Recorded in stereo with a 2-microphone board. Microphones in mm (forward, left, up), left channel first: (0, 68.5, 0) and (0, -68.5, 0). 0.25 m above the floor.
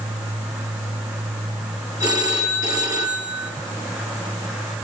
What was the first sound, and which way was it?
A phone ringing, 30° right (ahead or behind).